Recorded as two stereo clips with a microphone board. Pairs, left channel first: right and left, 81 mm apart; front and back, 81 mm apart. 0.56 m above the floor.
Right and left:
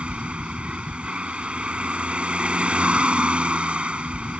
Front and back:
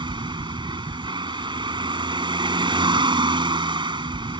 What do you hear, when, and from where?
0.0 s a vehicle: 165° left